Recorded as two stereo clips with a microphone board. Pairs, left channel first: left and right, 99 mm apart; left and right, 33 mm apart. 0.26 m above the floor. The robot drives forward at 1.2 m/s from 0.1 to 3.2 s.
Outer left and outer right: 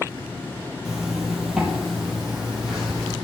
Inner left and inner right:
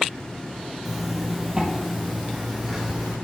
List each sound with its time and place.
0.8 s a zipper: 5° right (ahead or behind), 3 m; by 3.1 s centre (ahead or behind), 6 m